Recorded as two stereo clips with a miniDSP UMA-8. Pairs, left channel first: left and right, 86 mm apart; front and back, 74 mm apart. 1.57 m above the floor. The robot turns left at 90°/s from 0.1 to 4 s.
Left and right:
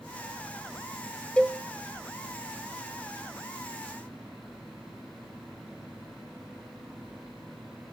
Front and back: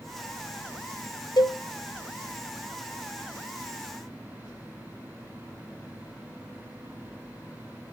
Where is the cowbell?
15° left, 0.8 m; by 1.6 s 10° right, 0.8 m.